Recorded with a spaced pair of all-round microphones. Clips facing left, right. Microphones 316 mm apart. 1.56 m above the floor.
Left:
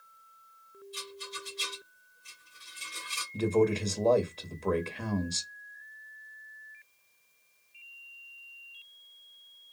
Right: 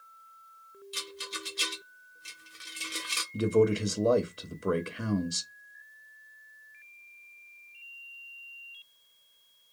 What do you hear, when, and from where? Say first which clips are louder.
0.9 s a rattle: right 2 dB; 85° right, 0.5 m
3.3 s a man speaking: right 2 dB; 15° right (ahead or behind), 0.5 m